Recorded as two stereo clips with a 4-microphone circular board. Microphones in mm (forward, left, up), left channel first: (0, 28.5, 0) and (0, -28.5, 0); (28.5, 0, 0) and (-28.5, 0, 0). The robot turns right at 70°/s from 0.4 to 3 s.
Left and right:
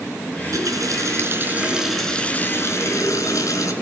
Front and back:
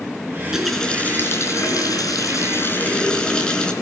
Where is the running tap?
110° right, 4.5 m; by 3.7 s 70° left, 4.5 m.